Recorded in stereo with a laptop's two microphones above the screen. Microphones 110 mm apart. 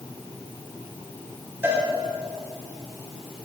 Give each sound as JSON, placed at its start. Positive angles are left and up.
{"t": 1.6, "sound": "a cowbell", "side_deg": -20, "distance_m": 4.5}